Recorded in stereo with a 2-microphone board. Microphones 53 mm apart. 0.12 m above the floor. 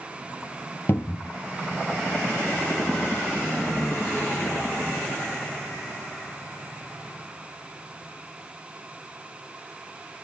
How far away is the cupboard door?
About 1.0 m.